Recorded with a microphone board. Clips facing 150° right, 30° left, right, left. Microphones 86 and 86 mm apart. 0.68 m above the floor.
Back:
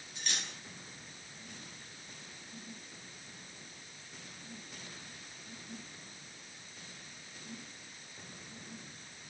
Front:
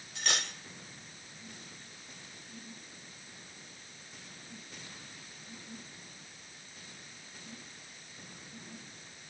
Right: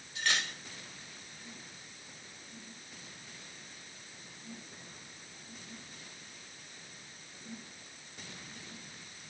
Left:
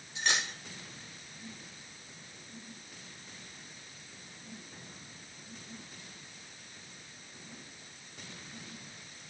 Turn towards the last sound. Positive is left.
turn(degrees=20)